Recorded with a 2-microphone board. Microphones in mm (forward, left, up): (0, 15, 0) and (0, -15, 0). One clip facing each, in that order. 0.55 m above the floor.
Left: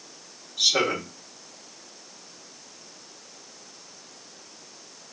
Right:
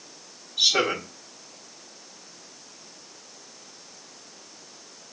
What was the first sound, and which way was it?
A man speaking, 15° right (ahead or behind).